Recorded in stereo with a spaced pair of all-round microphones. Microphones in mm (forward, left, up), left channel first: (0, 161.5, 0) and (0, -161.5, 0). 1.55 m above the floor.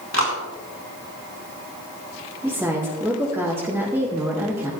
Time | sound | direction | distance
0.1 | a clap | 55° left (ahead or behind) | 4.5 m
2.4 | a woman speaking | 5° right (ahead or behind) | 3 m